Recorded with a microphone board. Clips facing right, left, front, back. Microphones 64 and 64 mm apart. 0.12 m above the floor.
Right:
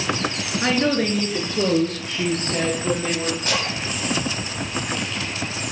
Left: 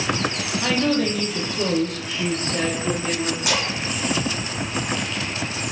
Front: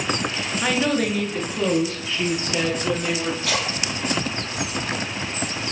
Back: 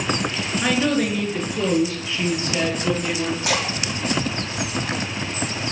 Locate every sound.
0.6 s a woman speaking: 90° right, 1.3 m; by 3.3 s 95° right, 2.5 m
3.4 s a splash: 170° left, 3 m